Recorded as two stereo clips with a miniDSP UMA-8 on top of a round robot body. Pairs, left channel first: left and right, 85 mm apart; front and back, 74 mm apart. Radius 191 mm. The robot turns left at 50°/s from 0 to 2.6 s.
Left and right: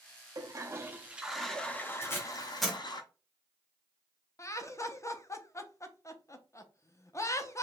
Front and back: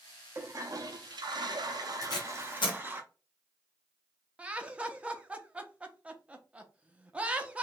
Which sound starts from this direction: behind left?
Laughter, at 4.4 s.